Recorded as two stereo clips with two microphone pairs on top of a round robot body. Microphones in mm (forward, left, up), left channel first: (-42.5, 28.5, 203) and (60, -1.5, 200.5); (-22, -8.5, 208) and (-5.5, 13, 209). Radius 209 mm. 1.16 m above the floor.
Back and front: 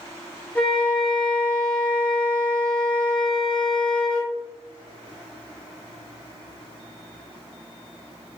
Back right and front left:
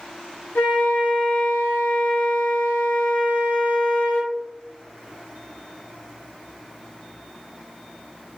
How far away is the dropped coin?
No dropped coin in this recording.